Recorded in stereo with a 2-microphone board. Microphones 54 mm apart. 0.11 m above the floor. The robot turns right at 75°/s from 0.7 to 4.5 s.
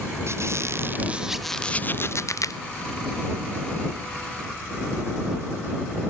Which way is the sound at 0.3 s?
55° right.